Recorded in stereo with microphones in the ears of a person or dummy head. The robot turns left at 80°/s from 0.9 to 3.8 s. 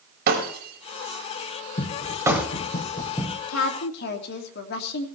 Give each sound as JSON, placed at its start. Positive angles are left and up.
{"t": 0.3, "sound": "breaking glass", "side_deg": -55, "distance_m": 3.5}
{"t": 1.8, "sound": "running footsteps", "side_deg": 25, "distance_m": 3.0}
{"t": 3.5, "sound": "a woman speaking", "side_deg": 85, "distance_m": 2.5}